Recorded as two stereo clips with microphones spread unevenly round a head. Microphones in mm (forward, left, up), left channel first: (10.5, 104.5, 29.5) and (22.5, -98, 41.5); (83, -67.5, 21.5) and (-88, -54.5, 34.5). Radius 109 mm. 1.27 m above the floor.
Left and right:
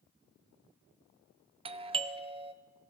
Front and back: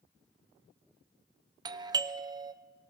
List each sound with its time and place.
1.6 s a doorbell: 130° right, 0.6 m